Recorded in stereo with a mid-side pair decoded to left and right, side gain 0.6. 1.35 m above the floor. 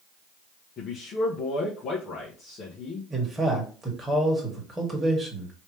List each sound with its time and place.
0.8 s a man speaking: 45° left, 1.2 m
3.1 s a man speaking: 15° right, 1.9 m